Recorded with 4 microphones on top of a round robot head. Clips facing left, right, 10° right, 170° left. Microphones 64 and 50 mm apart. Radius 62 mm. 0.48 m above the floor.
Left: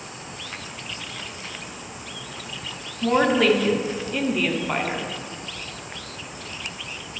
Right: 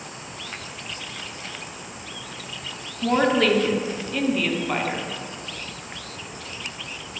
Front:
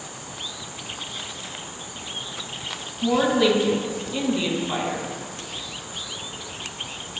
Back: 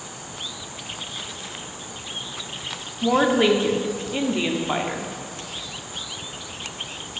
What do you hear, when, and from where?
3.0 s a woman speaking: 170° left, 0.8 m